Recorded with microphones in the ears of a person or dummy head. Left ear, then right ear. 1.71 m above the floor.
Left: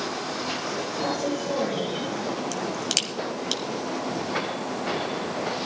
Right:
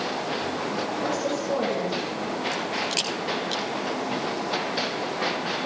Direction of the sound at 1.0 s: 10° right (ahead or behind).